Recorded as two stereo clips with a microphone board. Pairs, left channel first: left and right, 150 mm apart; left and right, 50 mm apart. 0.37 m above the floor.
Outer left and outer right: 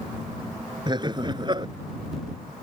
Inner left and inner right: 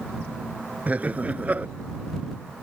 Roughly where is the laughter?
Right.